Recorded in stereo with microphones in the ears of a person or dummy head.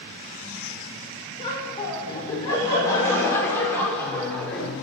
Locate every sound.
1.4 s laughter: 25° left (ahead or behind), 5.5 m; by 4.8 s centre (ahead or behind), 5 m